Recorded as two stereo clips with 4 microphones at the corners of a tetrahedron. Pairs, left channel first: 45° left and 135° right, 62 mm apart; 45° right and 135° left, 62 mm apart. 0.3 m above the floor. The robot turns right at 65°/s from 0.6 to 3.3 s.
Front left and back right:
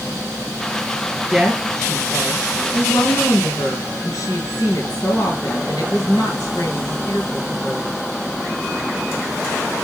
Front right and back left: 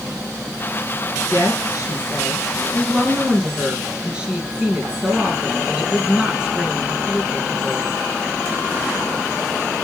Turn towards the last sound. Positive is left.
turn(degrees=65)